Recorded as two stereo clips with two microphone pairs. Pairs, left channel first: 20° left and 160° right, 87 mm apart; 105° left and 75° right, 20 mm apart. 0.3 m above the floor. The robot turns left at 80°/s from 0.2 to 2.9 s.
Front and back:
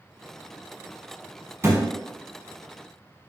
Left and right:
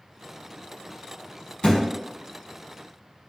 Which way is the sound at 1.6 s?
140° left.